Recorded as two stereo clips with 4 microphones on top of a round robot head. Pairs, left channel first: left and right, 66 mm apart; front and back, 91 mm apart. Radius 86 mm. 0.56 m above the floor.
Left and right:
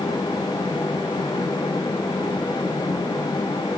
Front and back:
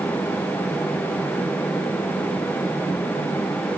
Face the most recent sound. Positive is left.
No sound to turn to.